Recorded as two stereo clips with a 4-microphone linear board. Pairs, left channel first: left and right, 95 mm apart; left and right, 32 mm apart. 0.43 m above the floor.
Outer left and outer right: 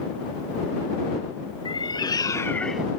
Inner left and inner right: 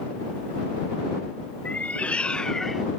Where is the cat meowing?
55° left (ahead or behind); by 2.9 s 15° right (ahead or behind).